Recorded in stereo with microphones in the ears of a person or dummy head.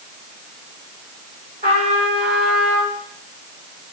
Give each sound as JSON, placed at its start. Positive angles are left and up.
{"t": 1.6, "sound": "a trumpet", "side_deg": -40, "distance_m": 4.5}